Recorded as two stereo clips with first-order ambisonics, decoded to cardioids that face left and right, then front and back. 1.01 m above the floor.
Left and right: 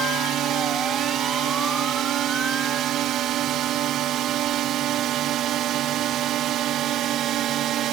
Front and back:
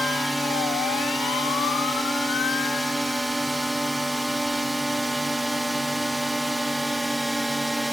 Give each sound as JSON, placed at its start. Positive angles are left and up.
{"t": 0.0, "sound": "a drone", "azimuth_deg": -95}